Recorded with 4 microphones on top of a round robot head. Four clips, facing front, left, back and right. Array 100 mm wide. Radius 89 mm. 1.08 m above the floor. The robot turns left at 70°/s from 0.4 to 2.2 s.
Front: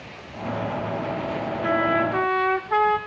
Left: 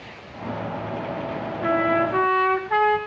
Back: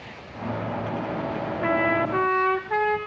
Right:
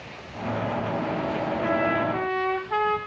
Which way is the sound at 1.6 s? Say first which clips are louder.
Left 5 dB, front 1 dB; 175° left.